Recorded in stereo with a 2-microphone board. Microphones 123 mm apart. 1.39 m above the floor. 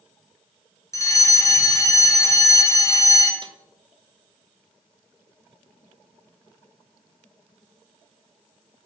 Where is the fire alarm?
25° left (ahead or behind), 0.8 m.